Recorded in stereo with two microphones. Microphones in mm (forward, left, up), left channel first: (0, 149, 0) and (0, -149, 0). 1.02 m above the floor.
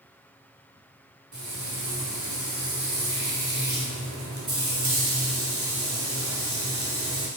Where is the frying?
65° right (ahead or behind), 1.1 m.